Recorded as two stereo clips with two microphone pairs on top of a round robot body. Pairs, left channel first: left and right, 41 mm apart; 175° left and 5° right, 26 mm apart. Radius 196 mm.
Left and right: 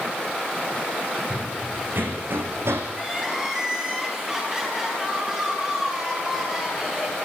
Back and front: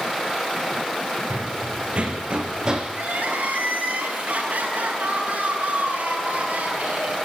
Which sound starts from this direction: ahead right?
Running footsteps, at 1.3 s.